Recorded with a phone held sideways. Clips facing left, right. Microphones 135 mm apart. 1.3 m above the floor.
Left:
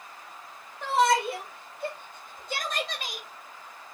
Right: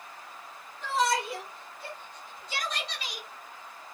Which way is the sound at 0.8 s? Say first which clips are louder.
Left 5 dB; 65° left (ahead or behind).